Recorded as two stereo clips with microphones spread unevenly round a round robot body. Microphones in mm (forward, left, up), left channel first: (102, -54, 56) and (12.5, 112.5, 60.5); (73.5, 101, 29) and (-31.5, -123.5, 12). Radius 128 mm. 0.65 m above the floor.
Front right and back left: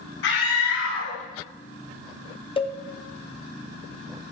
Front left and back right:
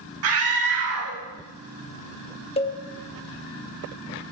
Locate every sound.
0.2 s a scream: 90° right, 4.5 m
2.6 s a cowbell: straight ahead, 1.4 m